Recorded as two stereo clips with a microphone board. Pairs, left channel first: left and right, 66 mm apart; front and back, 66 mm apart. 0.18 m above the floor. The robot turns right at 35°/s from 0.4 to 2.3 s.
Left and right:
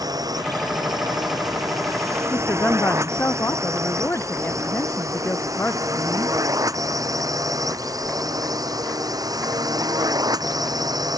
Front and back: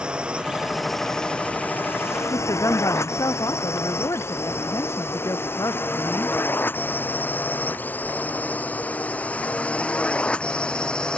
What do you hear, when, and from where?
0.0 s a drone: 105° right; by 11.2 s 75° right
2.3 s a woman speaking: 35° left